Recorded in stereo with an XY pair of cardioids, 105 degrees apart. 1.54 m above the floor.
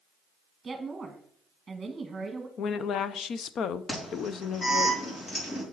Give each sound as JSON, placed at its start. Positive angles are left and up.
{"t": 0.6, "sound": "a woman speaking", "azimuth_deg": -25, "distance_m": 1.6}
{"t": 2.6, "sound": "a woman speaking", "azimuth_deg": 65, "distance_m": 0.6}
{"t": 3.9, "sound": "an alarm", "azimuth_deg": 45, "distance_m": 5.5}